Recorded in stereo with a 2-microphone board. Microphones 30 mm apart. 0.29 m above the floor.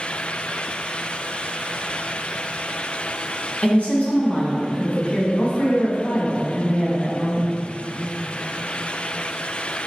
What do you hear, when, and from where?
3.6 s a woman speaking: 50° left (ahead or behind), 1.8 m